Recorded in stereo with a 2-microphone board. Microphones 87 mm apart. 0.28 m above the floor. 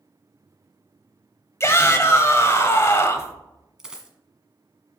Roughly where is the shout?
Left.